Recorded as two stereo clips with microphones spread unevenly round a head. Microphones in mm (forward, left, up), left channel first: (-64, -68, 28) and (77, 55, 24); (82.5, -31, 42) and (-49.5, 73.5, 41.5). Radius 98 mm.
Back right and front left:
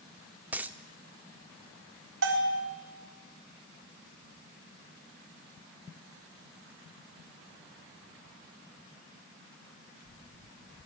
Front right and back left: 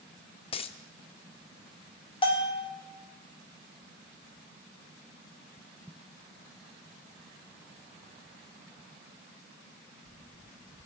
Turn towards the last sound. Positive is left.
turn(degrees=20)